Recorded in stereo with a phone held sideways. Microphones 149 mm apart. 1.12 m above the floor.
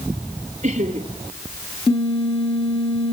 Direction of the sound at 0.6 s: 50° right (ahead or behind).